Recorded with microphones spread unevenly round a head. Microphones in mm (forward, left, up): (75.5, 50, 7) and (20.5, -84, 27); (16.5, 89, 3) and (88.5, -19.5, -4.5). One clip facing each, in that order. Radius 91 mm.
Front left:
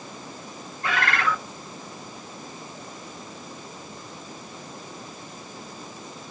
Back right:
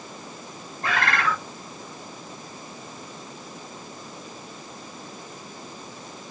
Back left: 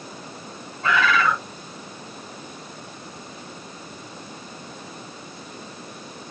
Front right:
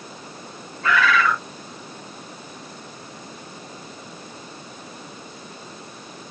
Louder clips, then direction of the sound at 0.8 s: Back right 1 dB, front right 1 dB; 165° right.